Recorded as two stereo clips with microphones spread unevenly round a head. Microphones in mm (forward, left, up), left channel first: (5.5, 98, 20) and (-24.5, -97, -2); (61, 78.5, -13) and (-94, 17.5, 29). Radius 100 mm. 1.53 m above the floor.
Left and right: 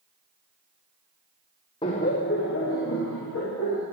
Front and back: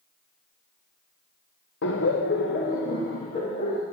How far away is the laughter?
About 1.0 m.